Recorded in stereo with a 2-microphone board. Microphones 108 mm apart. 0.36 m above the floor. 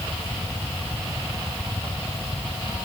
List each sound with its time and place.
Only background noise.